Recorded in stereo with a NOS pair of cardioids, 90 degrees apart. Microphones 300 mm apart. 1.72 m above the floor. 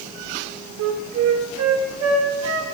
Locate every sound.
0.8 s a flute: 65° right, 1.3 m